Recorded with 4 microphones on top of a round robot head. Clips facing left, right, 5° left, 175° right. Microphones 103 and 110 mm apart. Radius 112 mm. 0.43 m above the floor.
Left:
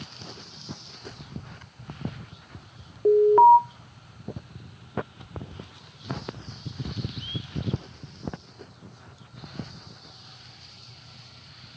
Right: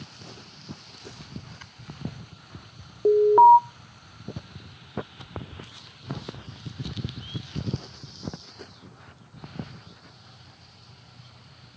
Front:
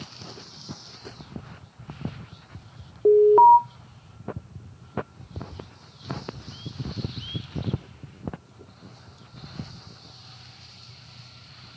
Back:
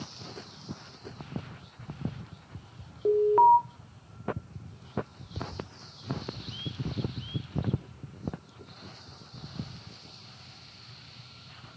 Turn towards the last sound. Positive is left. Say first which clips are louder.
# right 1 dB, front 7 dB
turn(degrees=-35)